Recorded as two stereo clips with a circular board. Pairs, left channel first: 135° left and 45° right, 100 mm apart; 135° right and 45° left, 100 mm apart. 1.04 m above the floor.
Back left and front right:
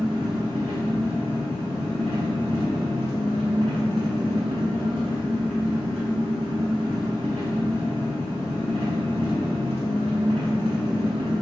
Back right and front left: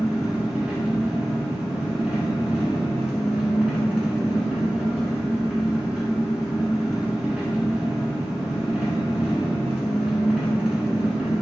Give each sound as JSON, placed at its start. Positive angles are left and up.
{"t": 0.0, "sound": "an engine running", "azimuth_deg": -30, "distance_m": 1.4}